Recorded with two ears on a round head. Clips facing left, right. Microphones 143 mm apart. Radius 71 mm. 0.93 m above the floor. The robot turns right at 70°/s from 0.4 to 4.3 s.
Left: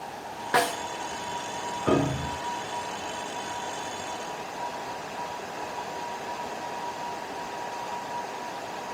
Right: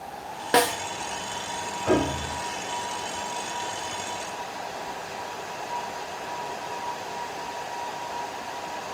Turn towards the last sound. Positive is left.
turn(degrees=-135)